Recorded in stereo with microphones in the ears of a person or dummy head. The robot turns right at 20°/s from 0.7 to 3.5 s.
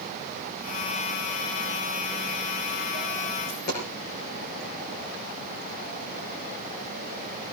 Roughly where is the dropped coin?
Left.